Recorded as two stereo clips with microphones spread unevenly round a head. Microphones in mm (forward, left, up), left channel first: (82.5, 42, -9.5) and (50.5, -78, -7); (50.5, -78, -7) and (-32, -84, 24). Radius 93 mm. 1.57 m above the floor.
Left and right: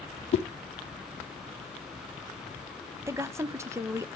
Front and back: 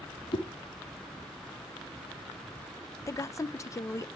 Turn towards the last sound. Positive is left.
turn(degrees=-60)